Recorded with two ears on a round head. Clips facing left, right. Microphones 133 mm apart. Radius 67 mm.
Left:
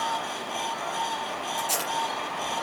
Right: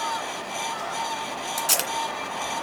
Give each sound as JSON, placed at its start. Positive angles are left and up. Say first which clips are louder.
{"t": 1.6, "sound": "tape being pulled", "louder": "right 2 dB", "side_deg": -75, "distance_m": 2.0}